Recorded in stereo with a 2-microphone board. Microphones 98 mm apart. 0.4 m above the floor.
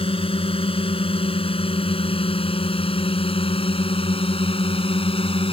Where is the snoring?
No snoring in this recording.